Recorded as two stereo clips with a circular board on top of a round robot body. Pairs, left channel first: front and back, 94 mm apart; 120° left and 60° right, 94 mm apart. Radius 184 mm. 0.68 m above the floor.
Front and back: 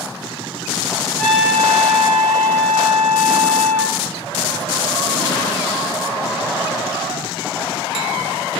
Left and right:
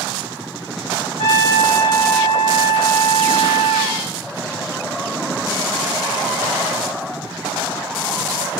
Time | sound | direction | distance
1.2 | a trumpet | 90° left | 0.6 m